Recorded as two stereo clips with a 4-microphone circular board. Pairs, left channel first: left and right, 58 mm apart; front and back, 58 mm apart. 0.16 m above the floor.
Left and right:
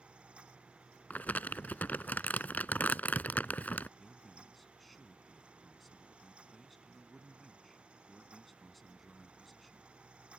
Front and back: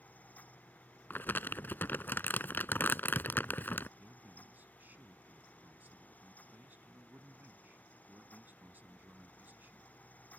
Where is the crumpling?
40° left.